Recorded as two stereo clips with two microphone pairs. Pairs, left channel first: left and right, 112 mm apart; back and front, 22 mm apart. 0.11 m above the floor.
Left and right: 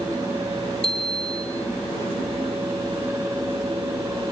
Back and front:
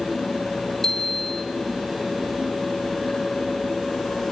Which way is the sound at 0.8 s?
115° left.